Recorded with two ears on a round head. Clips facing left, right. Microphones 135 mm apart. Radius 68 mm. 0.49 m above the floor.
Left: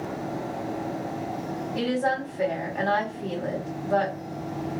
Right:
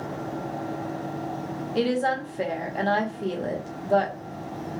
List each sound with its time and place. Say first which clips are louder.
1.8 s a woman speaking: right 2 dB; 35° right (ahead or behind), 1.1 m